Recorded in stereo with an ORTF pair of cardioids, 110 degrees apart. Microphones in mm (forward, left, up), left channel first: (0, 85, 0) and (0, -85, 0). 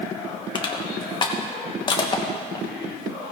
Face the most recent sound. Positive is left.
turn(degrees=30)